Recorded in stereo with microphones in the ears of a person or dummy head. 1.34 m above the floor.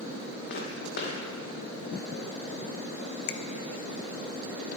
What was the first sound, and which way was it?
Footsteps, 55° left (ahead or behind).